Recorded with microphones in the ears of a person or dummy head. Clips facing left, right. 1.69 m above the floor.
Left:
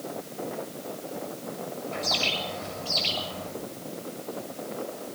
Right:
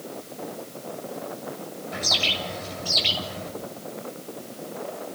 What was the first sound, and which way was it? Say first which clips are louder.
A bird: right 2 dB; 20° right (ahead or behind).